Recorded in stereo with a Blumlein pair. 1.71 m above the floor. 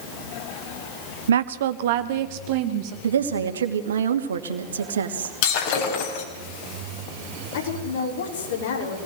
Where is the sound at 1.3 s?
65° right, 0.8 m; by 2.9 s 45° right, 1.9 m.